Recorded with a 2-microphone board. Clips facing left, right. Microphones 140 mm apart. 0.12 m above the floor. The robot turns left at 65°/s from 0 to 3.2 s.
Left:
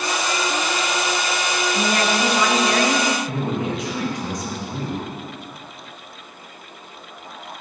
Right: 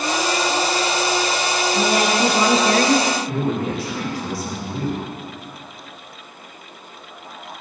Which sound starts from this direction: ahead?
A woman speaking, at 1.7 s.